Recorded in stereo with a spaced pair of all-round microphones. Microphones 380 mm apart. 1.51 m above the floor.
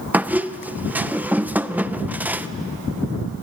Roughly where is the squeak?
Centre.